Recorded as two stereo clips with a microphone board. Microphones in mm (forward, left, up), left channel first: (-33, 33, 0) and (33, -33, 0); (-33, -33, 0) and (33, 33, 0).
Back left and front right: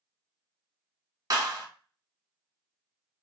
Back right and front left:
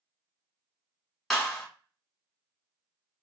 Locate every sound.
1.3 s a clap: 50° right, 1.4 m